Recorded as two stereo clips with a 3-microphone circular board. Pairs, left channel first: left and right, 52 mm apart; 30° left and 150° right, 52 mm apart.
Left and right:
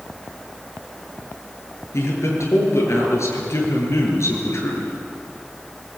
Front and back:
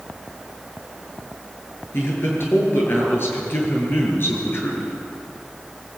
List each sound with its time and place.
1.9 s a man speaking: 70° left, 7.5 m